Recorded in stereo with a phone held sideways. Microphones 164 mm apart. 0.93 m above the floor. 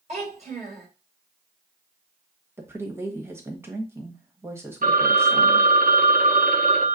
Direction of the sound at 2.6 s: 15° right (ahead or behind).